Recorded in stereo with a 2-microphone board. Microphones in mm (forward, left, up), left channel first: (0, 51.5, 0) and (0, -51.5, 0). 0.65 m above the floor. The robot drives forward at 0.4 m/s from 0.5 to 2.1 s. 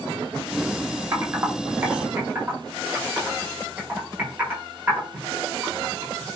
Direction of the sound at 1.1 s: 30° right (ahead or behind).